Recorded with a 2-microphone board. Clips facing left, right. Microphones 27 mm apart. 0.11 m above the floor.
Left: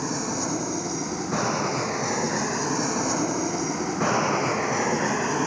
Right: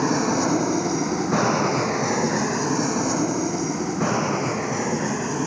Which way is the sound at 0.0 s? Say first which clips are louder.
Right 7 dB; 25° right (ahead or behind).